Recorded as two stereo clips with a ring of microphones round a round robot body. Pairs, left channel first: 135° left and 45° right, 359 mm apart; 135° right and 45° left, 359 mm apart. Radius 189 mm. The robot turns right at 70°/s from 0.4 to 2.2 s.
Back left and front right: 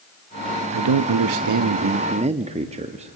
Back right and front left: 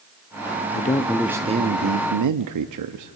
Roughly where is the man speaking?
Right.